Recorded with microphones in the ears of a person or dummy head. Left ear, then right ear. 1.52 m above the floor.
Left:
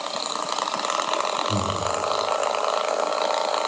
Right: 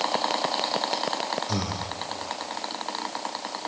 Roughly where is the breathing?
Right.